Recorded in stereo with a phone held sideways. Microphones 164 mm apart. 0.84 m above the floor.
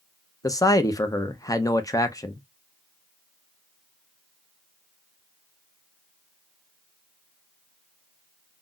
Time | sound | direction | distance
0.4 | a man speaking | 20° left (ahead or behind) | 0.5 m